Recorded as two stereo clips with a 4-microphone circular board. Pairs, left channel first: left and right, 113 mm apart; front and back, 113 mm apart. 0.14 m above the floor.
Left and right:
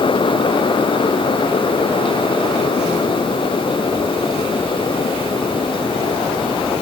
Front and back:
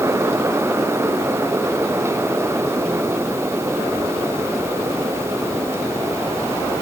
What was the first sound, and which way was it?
Only background noise.